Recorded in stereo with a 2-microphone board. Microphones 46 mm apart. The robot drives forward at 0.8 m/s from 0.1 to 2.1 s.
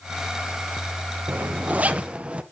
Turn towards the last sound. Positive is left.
turn(degrees=-25)  # may be behind; listen again after turning